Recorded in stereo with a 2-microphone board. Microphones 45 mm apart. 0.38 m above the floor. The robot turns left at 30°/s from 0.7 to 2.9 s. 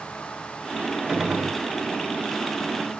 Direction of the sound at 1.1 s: 15° right (ahead or behind).